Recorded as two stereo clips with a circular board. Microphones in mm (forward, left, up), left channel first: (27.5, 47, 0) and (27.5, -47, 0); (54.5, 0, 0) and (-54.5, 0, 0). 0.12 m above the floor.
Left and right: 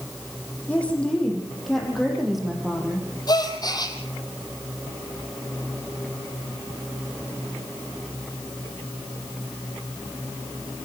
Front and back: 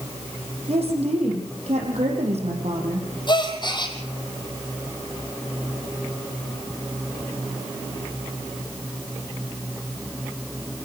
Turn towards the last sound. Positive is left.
turn(degrees=45)